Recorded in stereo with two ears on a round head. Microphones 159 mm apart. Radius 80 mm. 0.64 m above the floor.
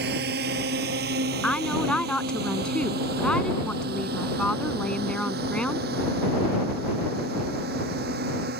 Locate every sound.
0.0 s a drone: 60° right (ahead or behind); by 8.6 s 55° right (ahead or behind)
1.4 s a woman speaking: 5° left (ahead or behind)